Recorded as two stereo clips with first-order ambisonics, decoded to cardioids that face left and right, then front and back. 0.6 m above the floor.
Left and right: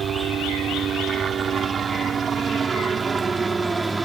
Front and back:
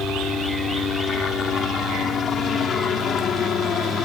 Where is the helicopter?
50° right; by 4.1 s 20° right.